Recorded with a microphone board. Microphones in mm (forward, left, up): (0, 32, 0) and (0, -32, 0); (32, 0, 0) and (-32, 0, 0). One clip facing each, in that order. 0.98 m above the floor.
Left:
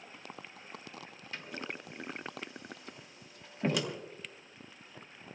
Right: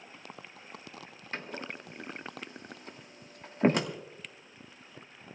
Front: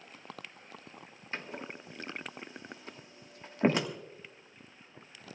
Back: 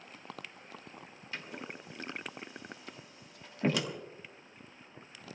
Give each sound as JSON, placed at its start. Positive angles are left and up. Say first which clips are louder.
{"t": 1.3, "sound": "a door slam", "louder": "right 3 dB, front 2 dB", "azimuth_deg": -50, "distance_m": 1.5}